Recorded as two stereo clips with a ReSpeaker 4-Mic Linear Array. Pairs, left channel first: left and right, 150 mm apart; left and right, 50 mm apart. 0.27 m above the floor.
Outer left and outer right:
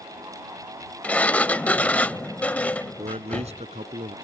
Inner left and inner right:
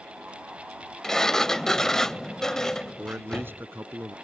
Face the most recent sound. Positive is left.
turn(degrees=-45)  # may be behind; listen again after turning